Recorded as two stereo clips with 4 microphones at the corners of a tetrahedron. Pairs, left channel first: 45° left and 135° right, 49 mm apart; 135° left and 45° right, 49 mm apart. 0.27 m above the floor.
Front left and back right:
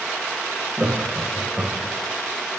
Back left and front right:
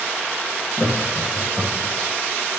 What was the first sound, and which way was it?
Laughter, 175° left.